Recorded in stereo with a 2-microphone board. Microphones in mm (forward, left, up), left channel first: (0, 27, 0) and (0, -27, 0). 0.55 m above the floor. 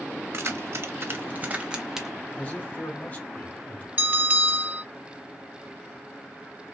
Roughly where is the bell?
Right.